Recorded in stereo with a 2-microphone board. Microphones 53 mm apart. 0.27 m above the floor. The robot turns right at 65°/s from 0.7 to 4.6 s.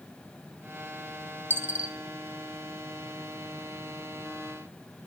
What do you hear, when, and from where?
1.5 s a dropped coin: 45° right (ahead or behind), 0.6 m; by 1.9 s 20° right (ahead or behind), 0.6 m